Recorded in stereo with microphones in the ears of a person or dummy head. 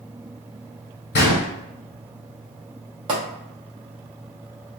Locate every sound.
1.1 s a gunshot: 50° left (ahead or behind), 1.4 m
3.1 s a pop: 25° right (ahead or behind), 0.7 m